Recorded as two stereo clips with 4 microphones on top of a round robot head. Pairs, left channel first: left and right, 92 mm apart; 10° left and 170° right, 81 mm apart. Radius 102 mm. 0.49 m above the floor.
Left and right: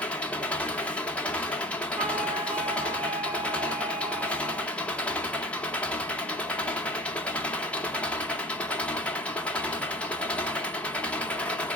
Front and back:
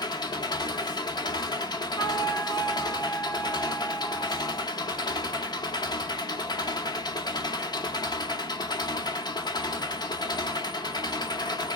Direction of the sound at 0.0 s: 15° left.